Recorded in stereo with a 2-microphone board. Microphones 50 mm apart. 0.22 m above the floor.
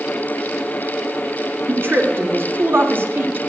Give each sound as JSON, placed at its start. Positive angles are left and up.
{"t": 1.7, "sound": "a woman speaking", "side_deg": -50, "distance_m": 2.0}